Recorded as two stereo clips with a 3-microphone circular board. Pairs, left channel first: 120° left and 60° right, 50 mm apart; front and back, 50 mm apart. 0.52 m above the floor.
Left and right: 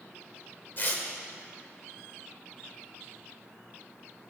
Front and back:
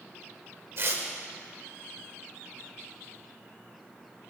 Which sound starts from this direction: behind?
Tearing paper, at 0.8 s.